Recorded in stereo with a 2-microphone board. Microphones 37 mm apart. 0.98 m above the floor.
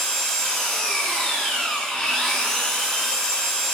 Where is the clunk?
I don't hear a clunk.